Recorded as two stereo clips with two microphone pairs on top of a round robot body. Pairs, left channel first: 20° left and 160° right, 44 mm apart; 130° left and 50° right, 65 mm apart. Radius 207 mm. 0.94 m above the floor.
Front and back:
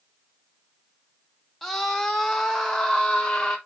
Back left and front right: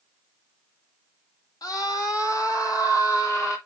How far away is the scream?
About 1.8 m.